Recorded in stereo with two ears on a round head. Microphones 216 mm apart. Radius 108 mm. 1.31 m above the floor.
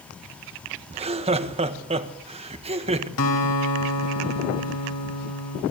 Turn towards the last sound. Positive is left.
turn(degrees=75)  # may be behind; listen again after turning